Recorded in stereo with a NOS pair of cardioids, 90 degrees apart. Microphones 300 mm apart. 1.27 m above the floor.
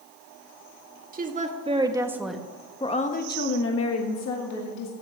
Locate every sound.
1.1 s a woman speaking: 30° right, 2 m; by 4.9 s 70° left, 2 m